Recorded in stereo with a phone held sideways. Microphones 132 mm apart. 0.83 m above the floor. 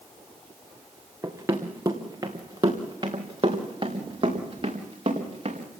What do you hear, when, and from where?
1.2 s running footsteps: 15° right (ahead or behind), 3 m; by 5.7 s 40° right (ahead or behind), 5 m